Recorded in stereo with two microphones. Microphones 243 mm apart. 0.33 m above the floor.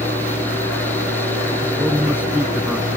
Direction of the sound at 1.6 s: 5° right (ahead or behind).